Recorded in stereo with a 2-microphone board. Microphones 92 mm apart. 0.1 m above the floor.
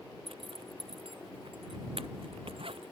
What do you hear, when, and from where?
0.3 s a zipper: 75° right (ahead or behind)